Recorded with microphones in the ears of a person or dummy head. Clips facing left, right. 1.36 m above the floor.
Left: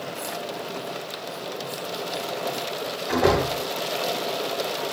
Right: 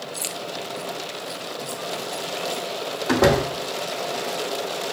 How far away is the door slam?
About 2.5 m.